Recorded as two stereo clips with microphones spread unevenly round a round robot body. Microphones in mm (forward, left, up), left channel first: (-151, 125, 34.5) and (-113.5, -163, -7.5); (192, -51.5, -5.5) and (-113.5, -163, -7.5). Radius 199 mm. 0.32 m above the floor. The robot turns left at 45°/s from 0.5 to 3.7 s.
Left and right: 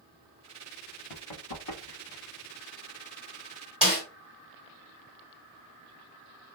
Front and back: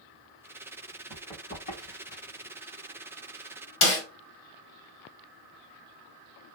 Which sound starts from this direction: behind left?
Running footsteps, at 1.1 s.